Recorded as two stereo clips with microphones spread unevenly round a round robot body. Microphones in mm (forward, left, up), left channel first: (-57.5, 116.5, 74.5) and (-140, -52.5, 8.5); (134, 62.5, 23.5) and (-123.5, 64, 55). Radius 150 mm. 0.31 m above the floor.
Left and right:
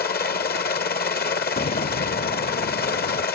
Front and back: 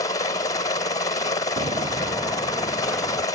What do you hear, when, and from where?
0.0 s a helicopter: 50° left
1.6 s footsteps: 115° left; by 3.2 s 90° left